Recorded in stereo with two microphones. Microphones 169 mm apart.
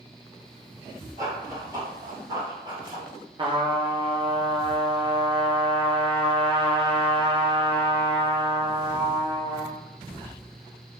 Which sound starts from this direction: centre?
Running footsteps, at 1.2 s.